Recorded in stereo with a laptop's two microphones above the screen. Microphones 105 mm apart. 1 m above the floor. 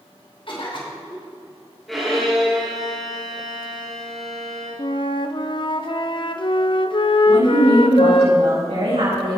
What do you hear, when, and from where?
0.5 s a cough: 55° left (ahead or behind), 3 m
1.9 s a violin: centre (ahead or behind), 3 m
4.8 s a flute: 50° left (ahead or behind), 0.6 m
7.3 s a woman speaking: 80° right, 5 m